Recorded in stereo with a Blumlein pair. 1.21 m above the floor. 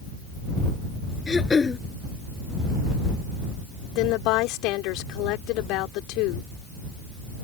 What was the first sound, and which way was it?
Throat clearing, 15° left.